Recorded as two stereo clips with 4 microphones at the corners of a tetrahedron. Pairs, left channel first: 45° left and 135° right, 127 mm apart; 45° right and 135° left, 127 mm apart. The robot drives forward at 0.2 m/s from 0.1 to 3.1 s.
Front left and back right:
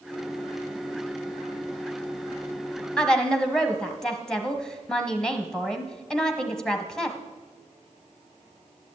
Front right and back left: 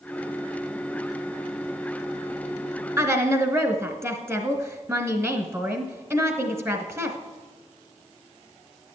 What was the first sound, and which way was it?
A woman speaking, 120° left.